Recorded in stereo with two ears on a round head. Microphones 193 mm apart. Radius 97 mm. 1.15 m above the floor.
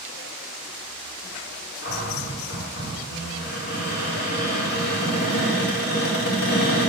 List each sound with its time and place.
1.8 s a cupboard door: 45° left (ahead or behind), 1.9 m